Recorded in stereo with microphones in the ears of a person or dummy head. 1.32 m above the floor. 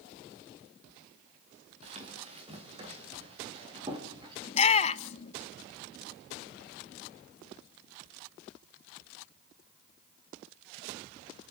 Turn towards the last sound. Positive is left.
turn(degrees=35)  # may be behind; listen again after turning